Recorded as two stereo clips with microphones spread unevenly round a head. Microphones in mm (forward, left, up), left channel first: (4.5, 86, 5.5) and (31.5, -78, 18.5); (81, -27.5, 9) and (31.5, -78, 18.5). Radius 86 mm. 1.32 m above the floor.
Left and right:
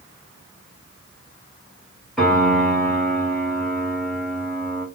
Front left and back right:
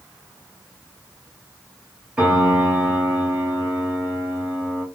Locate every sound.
2.2 s a piano: 165° right, 1.1 m